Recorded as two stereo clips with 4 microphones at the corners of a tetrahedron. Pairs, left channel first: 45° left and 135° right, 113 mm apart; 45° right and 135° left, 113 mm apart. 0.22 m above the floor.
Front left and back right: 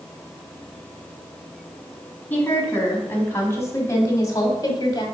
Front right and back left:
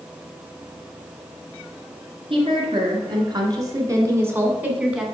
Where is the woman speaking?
115° left, 2 m; by 5.0 s 55° left, 1.5 m.